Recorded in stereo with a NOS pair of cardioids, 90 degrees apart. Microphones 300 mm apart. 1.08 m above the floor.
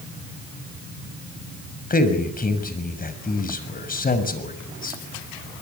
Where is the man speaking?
30° left, 6.5 m.